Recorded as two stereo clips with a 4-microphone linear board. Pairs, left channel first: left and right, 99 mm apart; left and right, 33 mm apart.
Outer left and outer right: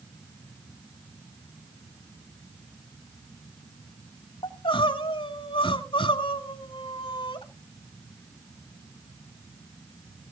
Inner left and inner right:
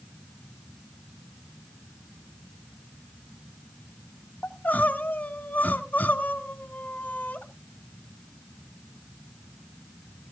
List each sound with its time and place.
4.4 s crying: 60° left (ahead or behind), 1.4 m